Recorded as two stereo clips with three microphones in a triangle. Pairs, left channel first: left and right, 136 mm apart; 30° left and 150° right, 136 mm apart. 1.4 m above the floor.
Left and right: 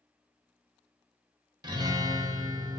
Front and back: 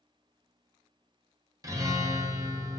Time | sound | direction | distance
1.6 | a guitar | 110° right | 0.6 m